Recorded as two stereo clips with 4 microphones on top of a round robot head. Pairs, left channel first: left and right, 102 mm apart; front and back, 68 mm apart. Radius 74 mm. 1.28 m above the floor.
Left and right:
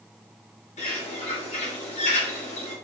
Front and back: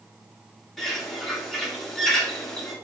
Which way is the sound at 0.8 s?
85° left.